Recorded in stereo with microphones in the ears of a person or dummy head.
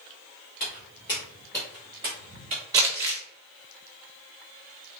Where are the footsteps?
30° left (ahead or behind), 1.8 m; by 2.6 s 30° right (ahead or behind), 1.7 m.